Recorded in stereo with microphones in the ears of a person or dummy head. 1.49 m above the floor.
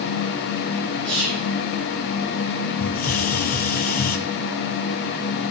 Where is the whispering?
10° left (ahead or behind), 7.5 m.